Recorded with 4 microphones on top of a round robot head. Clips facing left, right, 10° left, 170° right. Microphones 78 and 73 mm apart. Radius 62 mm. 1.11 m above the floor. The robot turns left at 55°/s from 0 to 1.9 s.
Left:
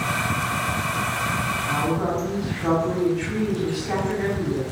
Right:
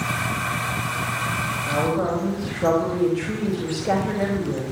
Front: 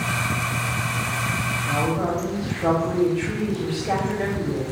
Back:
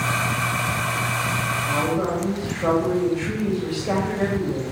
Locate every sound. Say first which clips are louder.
1.7 s a woman speaking: right 3 dB, even; 80° right, 5 m; by 4.6 s 95° right, 5 m